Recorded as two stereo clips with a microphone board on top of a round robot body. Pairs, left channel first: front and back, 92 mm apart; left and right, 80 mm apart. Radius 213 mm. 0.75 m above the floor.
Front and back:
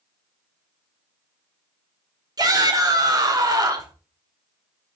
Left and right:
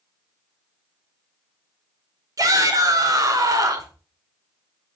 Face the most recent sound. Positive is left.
turn(degrees=-135)